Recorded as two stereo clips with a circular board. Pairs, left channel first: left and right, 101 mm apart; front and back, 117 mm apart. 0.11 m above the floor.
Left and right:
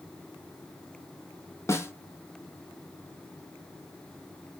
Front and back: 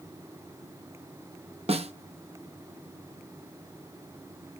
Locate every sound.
1.7 s a snare drum: 155° left, 0.7 m